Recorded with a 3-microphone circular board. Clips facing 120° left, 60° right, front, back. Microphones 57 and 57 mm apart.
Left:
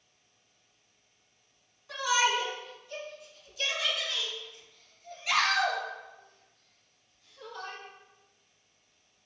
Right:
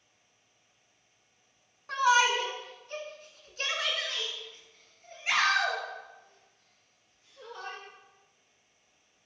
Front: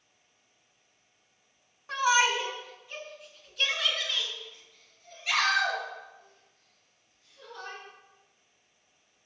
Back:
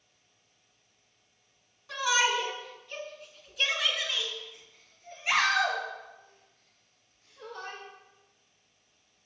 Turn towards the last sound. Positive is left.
turn(degrees=-125)